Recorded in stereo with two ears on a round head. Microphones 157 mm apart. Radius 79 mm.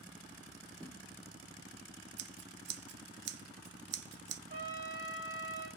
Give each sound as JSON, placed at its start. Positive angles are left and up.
{"t": 0.8, "sound": "a thud", "side_deg": -10, "distance_m": 4.0}
{"t": 2.2, "sound": "scissors", "side_deg": -70, "distance_m": 0.7}
{"t": 4.5, "sound": "a trumpet", "side_deg": -75, "distance_m": 3.5}